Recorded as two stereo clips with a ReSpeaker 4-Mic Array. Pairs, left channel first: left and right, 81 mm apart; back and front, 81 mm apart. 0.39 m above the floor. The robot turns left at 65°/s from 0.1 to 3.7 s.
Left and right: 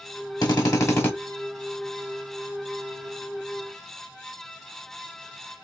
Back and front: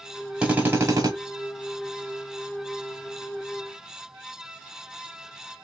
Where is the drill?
75° left, 1.0 m; by 1.1 s 25° left, 1.0 m.